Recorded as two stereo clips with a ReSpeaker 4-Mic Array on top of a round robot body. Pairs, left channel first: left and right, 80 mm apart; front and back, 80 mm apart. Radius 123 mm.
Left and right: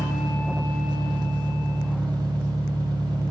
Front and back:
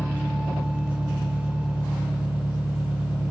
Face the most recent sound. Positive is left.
turn(degrees=-115)